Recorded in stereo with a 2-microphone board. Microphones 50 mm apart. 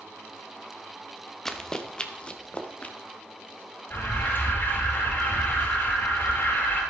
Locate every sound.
1.4 s running footsteps: 10° left (ahead or behind), 1.5 m; by 3.0 s 30° left (ahead or behind), 2 m
3.9 s an alarm: 45° left (ahead or behind), 4 m